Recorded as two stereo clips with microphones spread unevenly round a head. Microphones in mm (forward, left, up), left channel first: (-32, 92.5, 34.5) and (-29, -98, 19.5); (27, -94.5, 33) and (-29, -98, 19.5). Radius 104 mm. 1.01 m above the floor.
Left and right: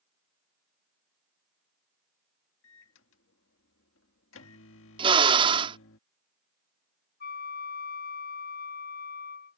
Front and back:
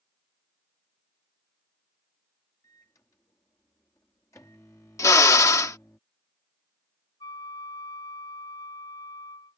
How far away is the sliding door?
I don't hear a sliding door.